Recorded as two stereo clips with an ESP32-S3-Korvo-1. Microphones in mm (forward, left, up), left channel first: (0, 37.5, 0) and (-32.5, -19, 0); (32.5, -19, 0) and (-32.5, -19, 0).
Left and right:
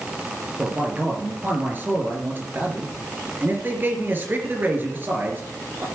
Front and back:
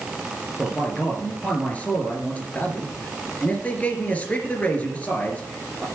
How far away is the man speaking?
About 3 m.